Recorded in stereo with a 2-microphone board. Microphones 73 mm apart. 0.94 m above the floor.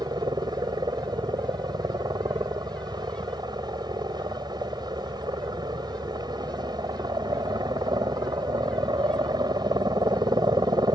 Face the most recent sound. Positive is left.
turn(degrees=-75)  # may be behind; listen again after turning